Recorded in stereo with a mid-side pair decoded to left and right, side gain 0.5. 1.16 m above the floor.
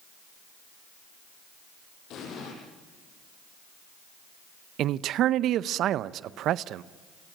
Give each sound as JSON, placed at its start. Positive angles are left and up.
{"t": 2.1, "sound": "an explosion", "azimuth_deg": 70, "distance_m": 9.0}
{"t": 4.8, "sound": "a man speaking", "azimuth_deg": -65, "distance_m": 0.6}